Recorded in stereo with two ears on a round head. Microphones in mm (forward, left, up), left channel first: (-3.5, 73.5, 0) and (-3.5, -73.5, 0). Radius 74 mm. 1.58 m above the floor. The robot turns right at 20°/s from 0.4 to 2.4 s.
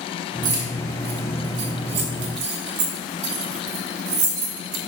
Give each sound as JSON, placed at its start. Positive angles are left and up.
{"t": 0.4, "sound": "keys jangling", "side_deg": -50, "distance_m": 1.7}